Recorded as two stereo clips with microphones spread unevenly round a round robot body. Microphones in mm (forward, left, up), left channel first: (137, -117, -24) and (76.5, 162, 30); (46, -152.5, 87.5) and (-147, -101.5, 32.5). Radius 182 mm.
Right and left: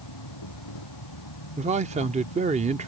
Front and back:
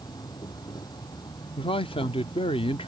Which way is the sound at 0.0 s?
85° right.